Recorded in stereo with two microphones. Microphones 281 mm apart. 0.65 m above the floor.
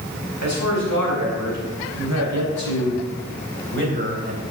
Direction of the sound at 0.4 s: 75° right (ahead or behind).